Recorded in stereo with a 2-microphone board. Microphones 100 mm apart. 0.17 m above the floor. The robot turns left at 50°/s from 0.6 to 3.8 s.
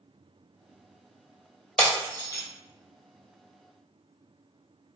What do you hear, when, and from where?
1.8 s breaking glass: 10° left (ahead or behind), 1.5 m; by 2.4 s 40° left (ahead or behind), 1.5 m